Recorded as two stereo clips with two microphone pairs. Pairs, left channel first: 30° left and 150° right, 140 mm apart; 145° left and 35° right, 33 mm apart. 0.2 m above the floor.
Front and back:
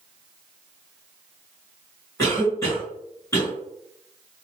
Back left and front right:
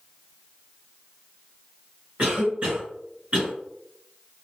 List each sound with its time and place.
2.2 s a cough: 35° right, 2.0 m